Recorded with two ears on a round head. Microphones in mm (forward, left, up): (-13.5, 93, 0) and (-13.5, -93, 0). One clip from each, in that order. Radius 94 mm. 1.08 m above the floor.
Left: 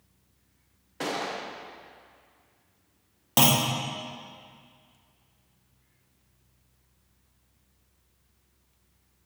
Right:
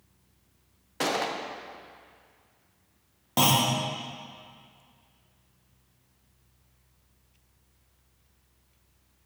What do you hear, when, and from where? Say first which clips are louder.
1.0 s a gunshot: right 3 dB; 20° right (ahead or behind), 0.6 m
3.4 s a clunk: even; 30° left (ahead or behind), 0.8 m